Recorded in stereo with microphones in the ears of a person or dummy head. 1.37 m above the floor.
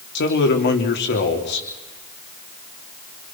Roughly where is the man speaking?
Left.